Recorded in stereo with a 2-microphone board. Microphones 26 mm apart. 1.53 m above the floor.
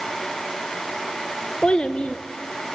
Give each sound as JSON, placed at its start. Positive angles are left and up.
{"t": 1.6, "sound": "a child speaking", "side_deg": 45, "distance_m": 0.7}